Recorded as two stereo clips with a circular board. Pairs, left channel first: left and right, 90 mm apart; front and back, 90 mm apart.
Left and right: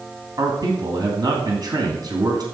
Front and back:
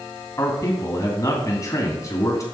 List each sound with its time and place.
0.4 s a man speaking: 50° right, 2.5 m